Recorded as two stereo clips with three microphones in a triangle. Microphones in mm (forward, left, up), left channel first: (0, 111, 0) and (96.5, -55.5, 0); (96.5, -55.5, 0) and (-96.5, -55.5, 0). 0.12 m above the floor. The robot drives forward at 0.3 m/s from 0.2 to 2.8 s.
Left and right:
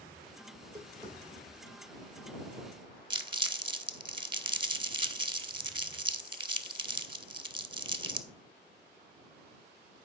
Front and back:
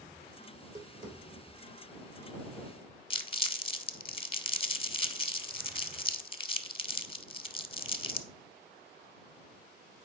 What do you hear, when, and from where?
0.5 s tapping: 130° right, 3.5 m; by 3.0 s 135° right, 4 m
3.1 s crumpling: 25° right, 0.5 m